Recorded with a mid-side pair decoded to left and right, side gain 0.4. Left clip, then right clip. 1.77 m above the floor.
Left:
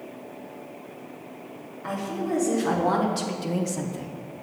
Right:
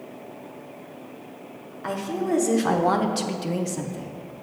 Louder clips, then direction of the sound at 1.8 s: Right 3 dB; 65° right.